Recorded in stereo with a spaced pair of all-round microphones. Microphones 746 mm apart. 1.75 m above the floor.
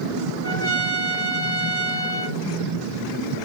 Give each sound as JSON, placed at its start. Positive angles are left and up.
{"t": 0.4, "sound": "a trumpet", "side_deg": 20, "distance_m": 1.1}